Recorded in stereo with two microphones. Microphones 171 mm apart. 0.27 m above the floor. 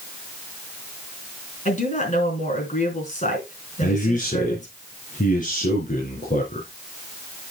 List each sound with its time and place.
1.6 s a woman speaking: 45° left (ahead or behind), 3.5 m
3.8 s a man speaking: 50° left (ahead or behind), 3 m